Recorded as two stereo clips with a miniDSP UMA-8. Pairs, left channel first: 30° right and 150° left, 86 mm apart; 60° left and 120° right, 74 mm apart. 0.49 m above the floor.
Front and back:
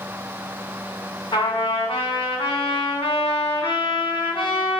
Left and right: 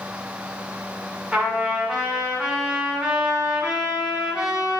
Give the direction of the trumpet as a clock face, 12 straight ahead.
1 o'clock.